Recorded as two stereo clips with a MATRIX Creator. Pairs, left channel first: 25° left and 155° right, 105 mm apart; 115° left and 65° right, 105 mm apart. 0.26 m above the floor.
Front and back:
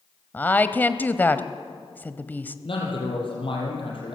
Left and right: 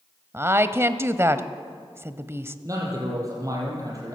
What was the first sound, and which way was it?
A woman speaking, 30° right.